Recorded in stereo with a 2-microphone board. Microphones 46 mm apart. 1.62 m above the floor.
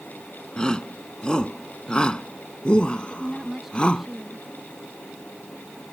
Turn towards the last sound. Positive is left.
turn(degrees=-5)  # may be behind; listen again after turning